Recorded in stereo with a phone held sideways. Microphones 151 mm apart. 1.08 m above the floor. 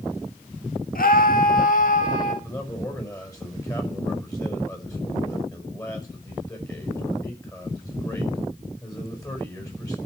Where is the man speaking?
25° left (ahead or behind), 5.5 m.